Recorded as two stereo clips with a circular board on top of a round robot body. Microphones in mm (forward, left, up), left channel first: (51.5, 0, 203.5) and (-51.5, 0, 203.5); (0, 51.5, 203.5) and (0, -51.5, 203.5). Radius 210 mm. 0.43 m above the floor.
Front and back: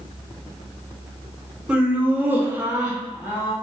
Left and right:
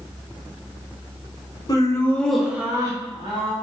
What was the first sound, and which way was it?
Laughter, 105° left.